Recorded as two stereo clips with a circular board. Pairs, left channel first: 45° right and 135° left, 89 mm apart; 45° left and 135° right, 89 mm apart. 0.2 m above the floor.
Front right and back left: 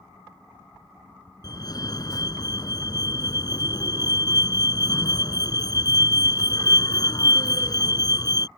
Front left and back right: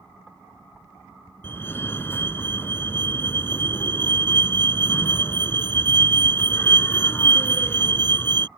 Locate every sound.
1.4 s a fire alarm: 15° right